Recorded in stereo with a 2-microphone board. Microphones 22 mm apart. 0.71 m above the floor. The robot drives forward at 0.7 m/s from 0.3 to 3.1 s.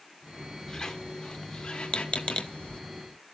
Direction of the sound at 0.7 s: 30° left (ahead or behind).